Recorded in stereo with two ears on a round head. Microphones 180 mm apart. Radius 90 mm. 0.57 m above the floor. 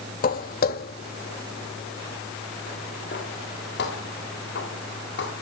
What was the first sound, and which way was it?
Footsteps, 45° left (ahead or behind).